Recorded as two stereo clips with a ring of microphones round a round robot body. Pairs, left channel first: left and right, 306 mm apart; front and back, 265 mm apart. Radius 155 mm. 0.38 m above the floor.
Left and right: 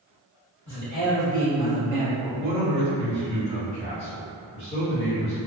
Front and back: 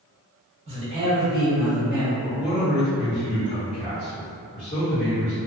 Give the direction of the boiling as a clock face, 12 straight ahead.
I don't hear boiling.